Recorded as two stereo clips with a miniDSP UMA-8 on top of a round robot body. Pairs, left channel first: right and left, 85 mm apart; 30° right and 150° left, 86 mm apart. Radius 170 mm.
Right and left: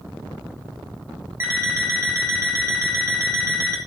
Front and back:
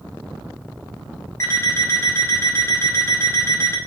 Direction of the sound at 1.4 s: 30° left.